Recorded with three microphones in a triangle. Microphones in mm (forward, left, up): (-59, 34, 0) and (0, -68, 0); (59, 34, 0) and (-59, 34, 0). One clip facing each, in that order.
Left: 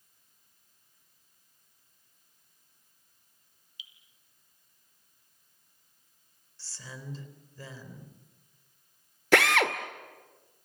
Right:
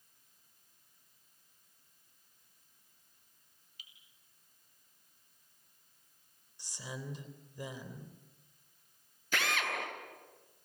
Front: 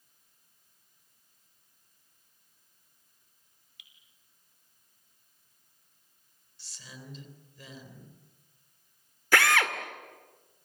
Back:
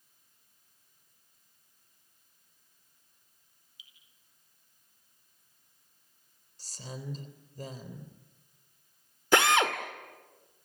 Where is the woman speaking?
135° right, 3.5 m.